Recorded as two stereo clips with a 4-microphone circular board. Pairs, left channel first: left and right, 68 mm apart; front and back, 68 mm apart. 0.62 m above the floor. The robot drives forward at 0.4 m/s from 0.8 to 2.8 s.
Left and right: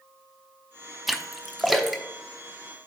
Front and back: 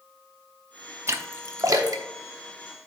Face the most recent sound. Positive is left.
turn(degrees=180)